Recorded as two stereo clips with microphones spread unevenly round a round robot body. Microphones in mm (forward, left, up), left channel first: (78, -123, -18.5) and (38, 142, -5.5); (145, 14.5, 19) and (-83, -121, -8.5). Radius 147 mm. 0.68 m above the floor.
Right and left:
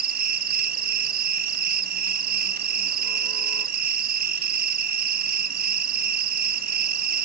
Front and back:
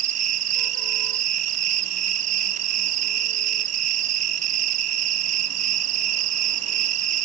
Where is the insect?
155° left, 0.7 m.